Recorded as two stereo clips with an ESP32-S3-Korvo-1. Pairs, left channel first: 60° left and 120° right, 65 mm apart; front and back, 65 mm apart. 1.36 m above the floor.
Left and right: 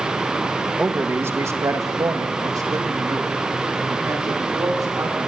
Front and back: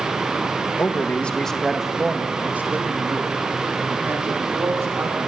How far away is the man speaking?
About 1.6 m.